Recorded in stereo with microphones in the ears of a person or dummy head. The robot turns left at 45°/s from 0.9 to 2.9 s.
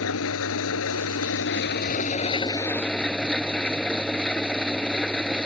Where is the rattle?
I don't hear a rattle.